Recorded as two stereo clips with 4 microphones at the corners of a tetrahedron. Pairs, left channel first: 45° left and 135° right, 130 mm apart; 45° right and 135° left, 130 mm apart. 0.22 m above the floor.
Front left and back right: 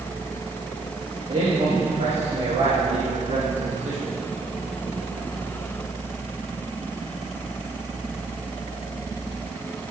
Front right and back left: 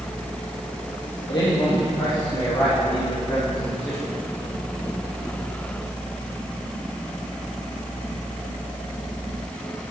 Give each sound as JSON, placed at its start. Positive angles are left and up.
{"t": 1.3, "sound": "a man speaking", "azimuth_deg": -95, "distance_m": 4.0}